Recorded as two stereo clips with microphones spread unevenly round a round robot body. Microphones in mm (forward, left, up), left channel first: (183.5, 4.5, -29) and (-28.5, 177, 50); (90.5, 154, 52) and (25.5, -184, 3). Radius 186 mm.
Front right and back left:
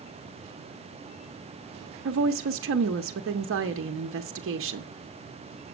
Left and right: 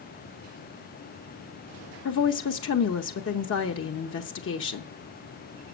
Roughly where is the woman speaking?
Behind left.